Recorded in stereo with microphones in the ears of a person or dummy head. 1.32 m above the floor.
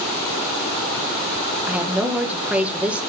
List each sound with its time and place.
1.7 s a woman speaking: 5° right (ahead or behind), 1.5 m